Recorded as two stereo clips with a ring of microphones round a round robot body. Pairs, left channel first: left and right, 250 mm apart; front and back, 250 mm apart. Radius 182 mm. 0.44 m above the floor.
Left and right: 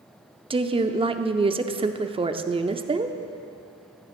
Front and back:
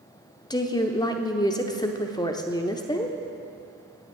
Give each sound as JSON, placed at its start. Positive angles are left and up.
{"t": 0.5, "sound": "a woman speaking", "azimuth_deg": -55, "distance_m": 0.7}